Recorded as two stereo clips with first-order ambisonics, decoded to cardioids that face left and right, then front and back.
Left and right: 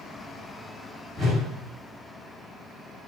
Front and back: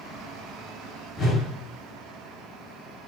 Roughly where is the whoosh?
Ahead.